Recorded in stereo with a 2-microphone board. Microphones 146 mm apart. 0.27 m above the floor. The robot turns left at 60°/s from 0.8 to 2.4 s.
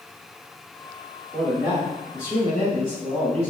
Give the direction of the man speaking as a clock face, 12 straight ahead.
12 o'clock.